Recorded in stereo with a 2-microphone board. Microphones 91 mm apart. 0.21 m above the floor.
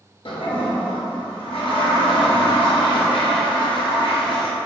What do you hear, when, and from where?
0.2 s a toilet flushing: 75° left (ahead or behind), 0.8 m